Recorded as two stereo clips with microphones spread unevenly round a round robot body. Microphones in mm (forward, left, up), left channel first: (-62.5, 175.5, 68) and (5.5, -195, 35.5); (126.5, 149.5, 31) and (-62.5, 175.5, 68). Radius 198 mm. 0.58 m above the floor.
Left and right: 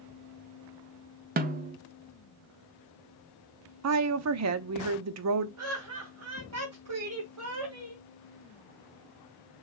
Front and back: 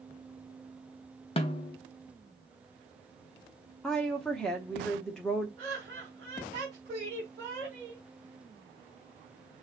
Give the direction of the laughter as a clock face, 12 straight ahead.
4 o'clock.